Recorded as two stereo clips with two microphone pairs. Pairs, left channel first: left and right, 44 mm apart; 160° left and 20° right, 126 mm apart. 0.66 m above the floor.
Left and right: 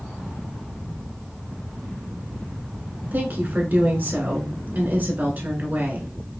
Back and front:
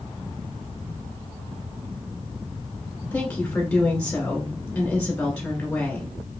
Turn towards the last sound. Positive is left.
turn(degrees=-125)